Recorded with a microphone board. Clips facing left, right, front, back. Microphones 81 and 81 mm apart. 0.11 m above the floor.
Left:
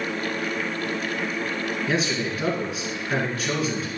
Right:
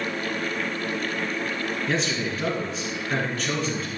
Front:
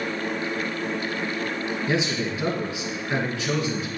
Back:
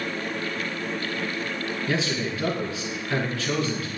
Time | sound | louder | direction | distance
1.9 | a man speaking | left 2 dB, front 1 dB | 20° left | 1.7 m